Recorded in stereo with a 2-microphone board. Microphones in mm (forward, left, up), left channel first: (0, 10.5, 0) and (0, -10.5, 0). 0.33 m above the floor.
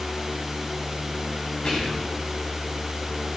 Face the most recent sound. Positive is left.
turn(degrees=55)  # may be behind; listen again after turning